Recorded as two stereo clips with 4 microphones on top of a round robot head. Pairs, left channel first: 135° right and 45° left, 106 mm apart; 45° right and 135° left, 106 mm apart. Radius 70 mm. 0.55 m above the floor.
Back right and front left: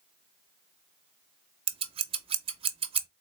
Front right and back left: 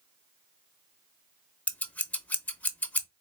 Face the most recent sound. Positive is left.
turn(degrees=30)